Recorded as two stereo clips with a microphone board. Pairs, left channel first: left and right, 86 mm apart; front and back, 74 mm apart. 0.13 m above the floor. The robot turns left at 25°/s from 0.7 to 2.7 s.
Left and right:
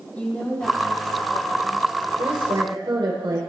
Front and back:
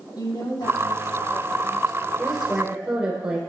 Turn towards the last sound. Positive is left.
turn(degrees=-100)